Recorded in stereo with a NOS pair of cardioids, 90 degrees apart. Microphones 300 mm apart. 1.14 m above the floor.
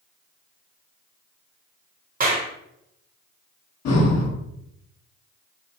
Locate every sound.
2.2 s a clap: 30° right, 1.2 m
3.9 s breathing: 60° left, 1.5 m